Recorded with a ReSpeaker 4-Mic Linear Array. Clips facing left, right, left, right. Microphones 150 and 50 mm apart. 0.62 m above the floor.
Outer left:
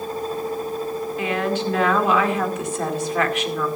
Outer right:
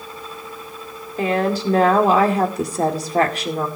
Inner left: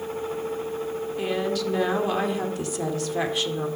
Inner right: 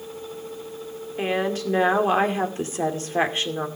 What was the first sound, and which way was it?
A woman speaking, 35° right (ahead or behind).